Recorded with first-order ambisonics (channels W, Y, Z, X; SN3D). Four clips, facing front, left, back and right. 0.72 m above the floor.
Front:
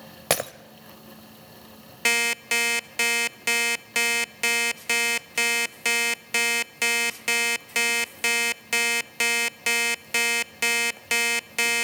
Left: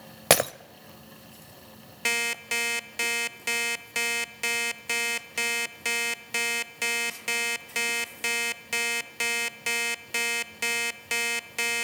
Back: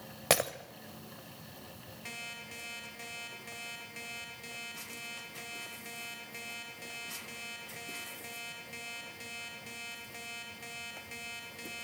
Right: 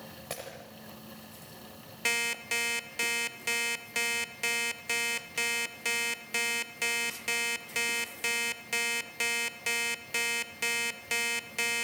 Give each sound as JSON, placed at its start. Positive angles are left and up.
{"t": 0.3, "sound": "breaking glass", "azimuth_deg": 80, "distance_m": 0.7}
{"t": 2.0, "sound": "an alarm clock", "azimuth_deg": 10, "distance_m": 0.8}